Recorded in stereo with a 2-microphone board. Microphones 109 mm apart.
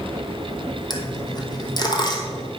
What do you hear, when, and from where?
0.9 s a dropped coin: 40° left (ahead or behind), 1.6 m